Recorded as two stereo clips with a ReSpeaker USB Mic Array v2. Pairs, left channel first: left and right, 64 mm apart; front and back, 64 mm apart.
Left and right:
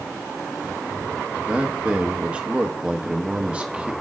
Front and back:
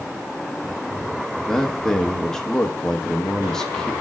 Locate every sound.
1.5 s a man speaking: 65° right, 1.1 m